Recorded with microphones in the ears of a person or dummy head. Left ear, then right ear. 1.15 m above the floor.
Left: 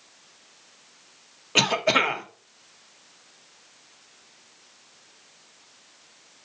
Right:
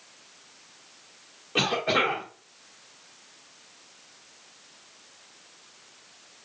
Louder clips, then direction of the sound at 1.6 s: Left 3 dB; 80° left.